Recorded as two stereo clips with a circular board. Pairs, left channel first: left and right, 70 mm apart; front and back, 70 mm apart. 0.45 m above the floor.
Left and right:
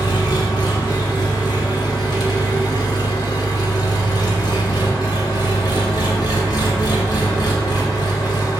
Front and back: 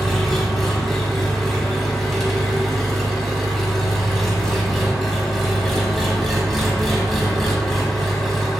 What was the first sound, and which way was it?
An engine running, 90° left.